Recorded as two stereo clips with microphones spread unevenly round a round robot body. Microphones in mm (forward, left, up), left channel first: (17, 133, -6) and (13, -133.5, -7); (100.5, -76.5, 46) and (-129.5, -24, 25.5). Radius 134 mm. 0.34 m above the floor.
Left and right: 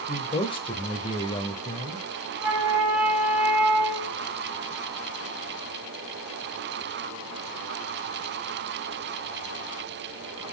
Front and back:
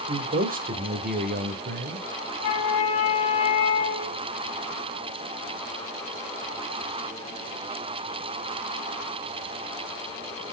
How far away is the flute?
About 3 m.